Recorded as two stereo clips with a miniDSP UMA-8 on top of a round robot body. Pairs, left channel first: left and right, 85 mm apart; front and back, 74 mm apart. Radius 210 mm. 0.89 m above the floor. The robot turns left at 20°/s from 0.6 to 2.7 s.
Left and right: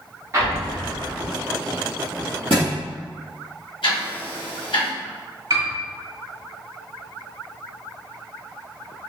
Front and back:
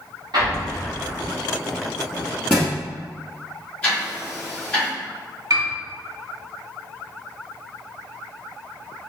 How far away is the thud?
About 0.8 m.